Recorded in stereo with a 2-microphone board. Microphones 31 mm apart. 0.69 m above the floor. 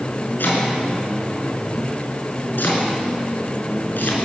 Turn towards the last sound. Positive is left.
turn(degrees=80)